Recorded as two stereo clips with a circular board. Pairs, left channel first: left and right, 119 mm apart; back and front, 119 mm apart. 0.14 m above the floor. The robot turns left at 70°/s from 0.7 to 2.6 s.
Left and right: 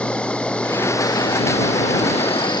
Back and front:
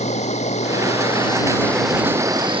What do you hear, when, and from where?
0.0 s an insect: 170° left; by 2.6 s 40° left